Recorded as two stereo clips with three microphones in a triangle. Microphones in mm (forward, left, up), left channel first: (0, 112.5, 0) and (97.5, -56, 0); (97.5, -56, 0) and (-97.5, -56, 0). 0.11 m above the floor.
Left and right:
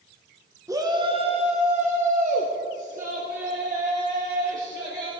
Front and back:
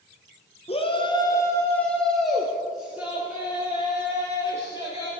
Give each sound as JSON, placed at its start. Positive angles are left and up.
{"t": 0.7, "sound": "a shout", "azimuth_deg": 0, "distance_m": 1.2}